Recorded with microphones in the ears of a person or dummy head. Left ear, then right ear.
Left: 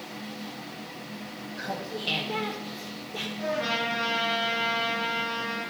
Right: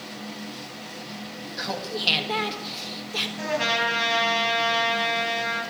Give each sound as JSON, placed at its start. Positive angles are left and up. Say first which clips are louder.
{"t": 1.6, "sound": "laughter", "louder": "right 5 dB", "side_deg": -35, "distance_m": 2.0}
{"t": 3.4, "sound": "a trumpet", "louder": "right 3 dB", "side_deg": -85, "distance_m": 9.0}